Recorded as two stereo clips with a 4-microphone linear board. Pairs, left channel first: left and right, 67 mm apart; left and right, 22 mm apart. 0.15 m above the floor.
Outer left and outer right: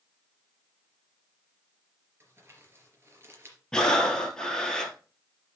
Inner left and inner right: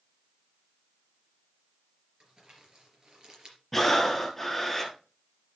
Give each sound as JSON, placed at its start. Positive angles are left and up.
{"t": 2.2, "sound": "crumpling", "side_deg": -40, "distance_m": 3.5}
{"t": 3.7, "sound": "breathing", "side_deg": 10, "distance_m": 1.8}